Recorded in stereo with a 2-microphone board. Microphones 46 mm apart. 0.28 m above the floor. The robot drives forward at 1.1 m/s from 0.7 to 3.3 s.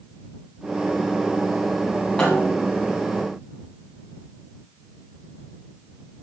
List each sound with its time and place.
2.2 s a snare drum: 20° left (ahead or behind), 6.5 m; by 2.8 s 15° left (ahead or behind), 7 m